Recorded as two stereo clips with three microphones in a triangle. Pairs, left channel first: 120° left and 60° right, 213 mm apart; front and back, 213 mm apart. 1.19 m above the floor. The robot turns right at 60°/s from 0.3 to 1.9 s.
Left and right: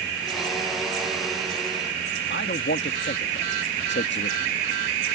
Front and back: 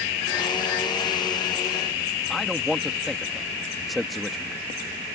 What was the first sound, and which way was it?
A man speaking, 90° left.